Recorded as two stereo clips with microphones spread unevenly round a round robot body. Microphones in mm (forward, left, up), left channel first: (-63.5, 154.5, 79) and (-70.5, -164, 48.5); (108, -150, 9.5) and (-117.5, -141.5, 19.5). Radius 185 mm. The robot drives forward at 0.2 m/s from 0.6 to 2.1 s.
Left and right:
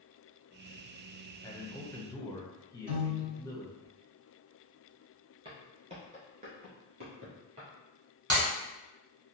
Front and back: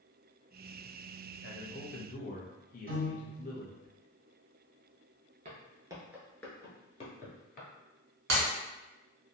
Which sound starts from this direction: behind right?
A piano, at 2.9 s.